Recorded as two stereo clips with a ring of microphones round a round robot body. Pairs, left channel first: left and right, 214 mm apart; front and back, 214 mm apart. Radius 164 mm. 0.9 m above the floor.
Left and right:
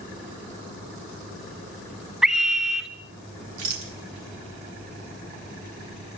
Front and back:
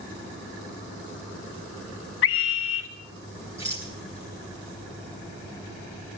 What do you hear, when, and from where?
2.2 s a scream: 5° right, 0.8 m
3.6 s a rattle: 100° right, 1.9 m